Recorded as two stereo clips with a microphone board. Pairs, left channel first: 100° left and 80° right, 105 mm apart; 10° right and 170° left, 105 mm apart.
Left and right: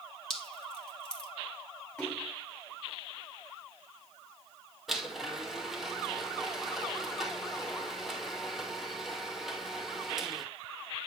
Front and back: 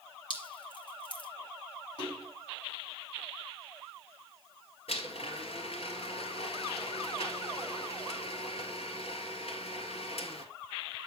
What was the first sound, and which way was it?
Dripping, 20° left.